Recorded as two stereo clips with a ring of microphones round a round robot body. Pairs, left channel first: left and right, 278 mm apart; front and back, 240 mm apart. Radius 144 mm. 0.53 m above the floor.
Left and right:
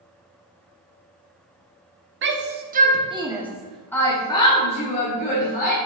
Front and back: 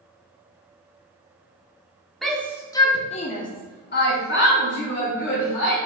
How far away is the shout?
About 1.3 m.